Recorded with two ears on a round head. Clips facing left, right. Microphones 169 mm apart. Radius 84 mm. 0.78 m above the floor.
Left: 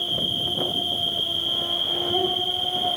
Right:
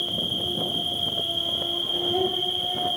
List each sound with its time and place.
0.0 s an insect: 20° right (ahead or behind), 10 m